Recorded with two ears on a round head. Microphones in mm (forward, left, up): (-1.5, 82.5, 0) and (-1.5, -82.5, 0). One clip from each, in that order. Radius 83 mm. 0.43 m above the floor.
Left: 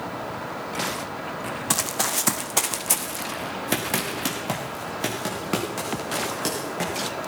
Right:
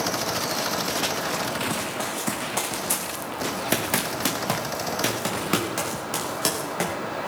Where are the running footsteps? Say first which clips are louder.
Left 3 dB; 65° left (ahead or behind), 1.2 m; by 7.0 s 20° right (ahead or behind), 4.5 m.